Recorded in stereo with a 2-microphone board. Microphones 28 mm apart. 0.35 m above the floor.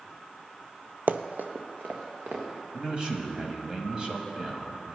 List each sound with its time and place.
1.1 s running footsteps: 60° right (ahead or behind), 0.5 m; by 2.4 s 80° right, 2.5 m
2.7 s a man speaking: 30° right (ahead or behind), 1.7 m